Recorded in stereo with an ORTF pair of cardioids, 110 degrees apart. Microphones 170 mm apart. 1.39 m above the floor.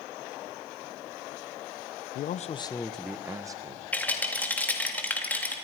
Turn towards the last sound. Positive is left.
turn(degrees=10)